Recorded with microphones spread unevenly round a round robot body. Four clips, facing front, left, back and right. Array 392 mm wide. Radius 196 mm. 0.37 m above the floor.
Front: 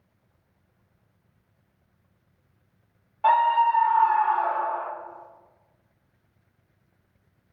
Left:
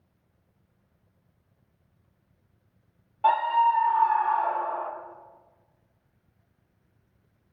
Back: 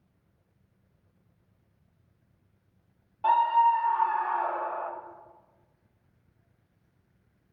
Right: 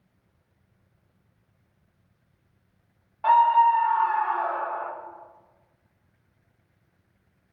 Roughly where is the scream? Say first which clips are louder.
Right 4 dB, front 2 dB; behind left.